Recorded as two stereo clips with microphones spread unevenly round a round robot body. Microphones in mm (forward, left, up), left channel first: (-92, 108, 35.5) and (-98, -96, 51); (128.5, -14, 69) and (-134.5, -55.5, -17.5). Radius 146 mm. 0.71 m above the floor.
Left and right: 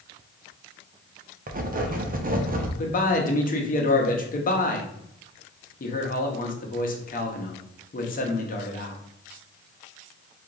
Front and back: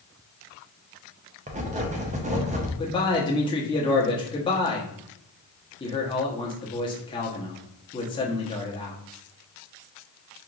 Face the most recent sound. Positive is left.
turn(degrees=95)